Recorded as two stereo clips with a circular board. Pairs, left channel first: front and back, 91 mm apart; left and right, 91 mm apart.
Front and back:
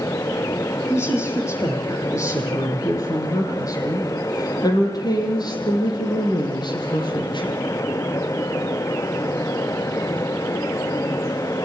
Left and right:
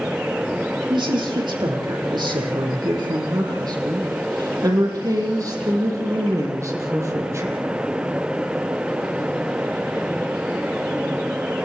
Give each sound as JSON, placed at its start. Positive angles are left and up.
{"t": 0.9, "sound": "a woman speaking", "azimuth_deg": -60, "distance_m": 7.0}